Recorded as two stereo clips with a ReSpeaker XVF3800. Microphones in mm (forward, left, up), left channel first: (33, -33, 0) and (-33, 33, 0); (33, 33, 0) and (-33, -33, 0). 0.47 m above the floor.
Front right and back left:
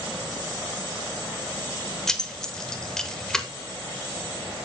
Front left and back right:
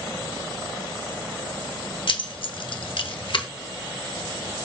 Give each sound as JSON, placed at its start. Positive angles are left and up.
{"t": 2.1, "sound": "keys jangling", "azimuth_deg": 40, "distance_m": 0.8}